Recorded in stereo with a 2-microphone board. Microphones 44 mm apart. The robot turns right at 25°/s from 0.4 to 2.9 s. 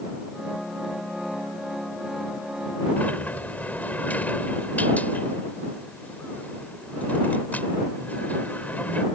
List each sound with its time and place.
3.0 s a sliding door: 40° left (ahead or behind)